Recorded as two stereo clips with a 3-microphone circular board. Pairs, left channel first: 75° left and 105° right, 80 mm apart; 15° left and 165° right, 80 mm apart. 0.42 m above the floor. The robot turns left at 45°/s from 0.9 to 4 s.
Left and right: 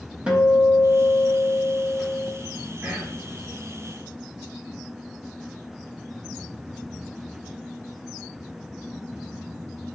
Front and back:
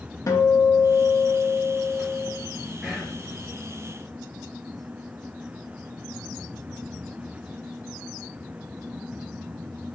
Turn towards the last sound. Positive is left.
turn(degrees=-140)